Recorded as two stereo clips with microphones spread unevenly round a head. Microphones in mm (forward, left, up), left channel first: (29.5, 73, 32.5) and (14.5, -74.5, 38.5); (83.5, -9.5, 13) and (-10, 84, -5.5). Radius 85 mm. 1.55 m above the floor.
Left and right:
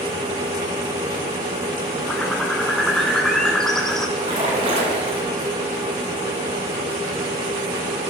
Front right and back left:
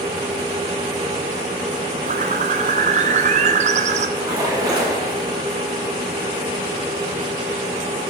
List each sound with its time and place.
2.1 s a bird: 175° left, 0.5 m
4.2 s a splash: 155° right, 2.5 m